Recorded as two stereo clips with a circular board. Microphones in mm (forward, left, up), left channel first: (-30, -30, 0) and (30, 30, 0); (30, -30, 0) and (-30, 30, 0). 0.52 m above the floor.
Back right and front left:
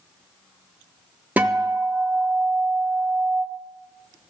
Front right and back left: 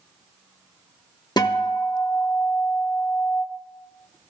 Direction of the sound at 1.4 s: 25° right.